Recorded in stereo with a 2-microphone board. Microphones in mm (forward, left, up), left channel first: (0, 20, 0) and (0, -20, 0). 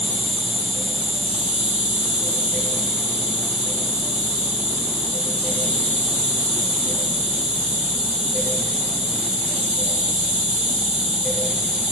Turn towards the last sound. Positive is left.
turn(degrees=-15)  # may be behind; listen again after turning